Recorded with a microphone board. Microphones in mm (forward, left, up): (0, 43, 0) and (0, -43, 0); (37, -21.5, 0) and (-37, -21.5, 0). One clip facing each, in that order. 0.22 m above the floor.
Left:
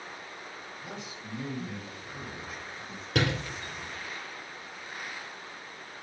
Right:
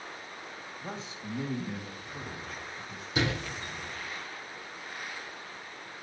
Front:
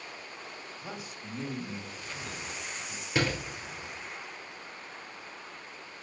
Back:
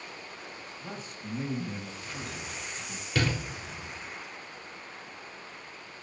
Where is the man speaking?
70° right, 1.8 m; by 3.0 s 160° left, 2.5 m.